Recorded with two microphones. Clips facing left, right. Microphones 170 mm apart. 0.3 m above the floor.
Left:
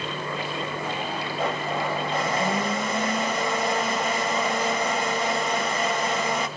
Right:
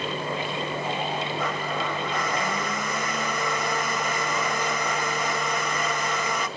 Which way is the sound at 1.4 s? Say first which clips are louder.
Left 2 dB; 30° left (ahead or behind).